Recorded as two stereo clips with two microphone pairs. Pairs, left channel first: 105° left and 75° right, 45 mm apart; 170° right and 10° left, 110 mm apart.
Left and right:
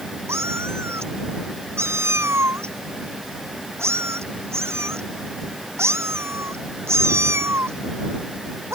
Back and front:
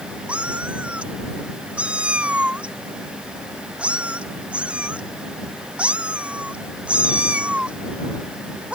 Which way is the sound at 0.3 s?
70° right.